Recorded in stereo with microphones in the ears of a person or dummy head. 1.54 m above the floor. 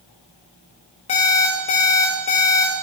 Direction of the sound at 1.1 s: 30° left (ahead or behind).